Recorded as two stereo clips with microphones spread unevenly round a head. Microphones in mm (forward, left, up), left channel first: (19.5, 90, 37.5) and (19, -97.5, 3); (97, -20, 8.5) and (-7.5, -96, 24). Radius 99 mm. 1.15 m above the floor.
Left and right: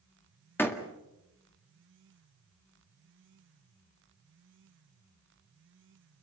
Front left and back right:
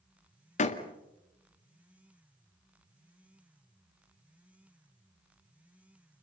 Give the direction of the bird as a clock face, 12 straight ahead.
No bird in this recording.